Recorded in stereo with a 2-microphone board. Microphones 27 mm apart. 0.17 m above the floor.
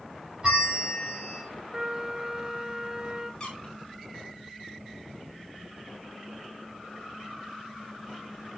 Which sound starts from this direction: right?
A trumpet, at 1.7 s.